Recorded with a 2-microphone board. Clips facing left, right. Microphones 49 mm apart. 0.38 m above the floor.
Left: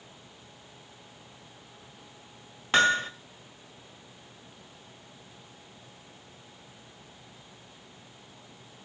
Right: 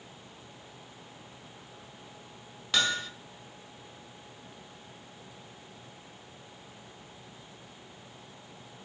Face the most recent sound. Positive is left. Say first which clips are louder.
# left 7 dB
turn(degrees=40)  # may be behind; listen again after turning